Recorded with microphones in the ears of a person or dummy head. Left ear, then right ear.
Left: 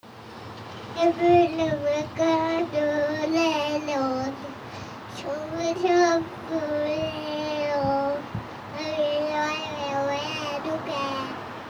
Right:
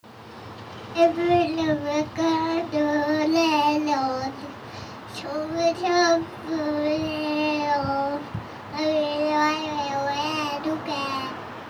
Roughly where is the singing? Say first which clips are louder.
Even; right.